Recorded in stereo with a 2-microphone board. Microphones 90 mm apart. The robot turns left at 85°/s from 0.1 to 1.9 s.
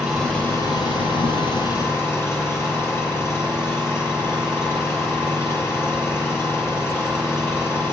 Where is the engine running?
175° right, 7 m; by 7.9 s 30° left, 7 m.